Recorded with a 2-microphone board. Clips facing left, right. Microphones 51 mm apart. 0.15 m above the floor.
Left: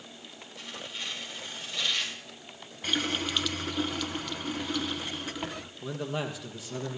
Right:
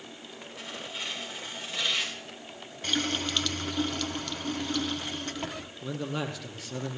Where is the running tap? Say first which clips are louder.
Even; 10° left (ahead or behind), 1.2 m.